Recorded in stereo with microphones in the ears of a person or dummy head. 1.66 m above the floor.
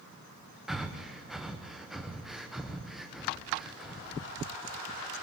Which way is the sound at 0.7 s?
Centre (ahead or behind).